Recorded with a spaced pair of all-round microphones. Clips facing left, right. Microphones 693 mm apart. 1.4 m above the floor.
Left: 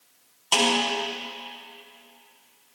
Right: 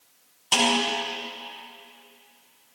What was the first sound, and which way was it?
A snare drum, 50° right (ahead or behind).